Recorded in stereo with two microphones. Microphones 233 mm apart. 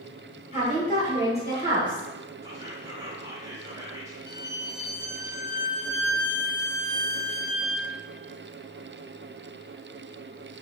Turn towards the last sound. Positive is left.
turn(degrees=40)  # may be behind; listen again after turning